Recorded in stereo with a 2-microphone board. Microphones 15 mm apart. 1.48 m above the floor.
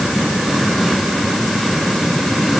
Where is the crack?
No crack in this recording.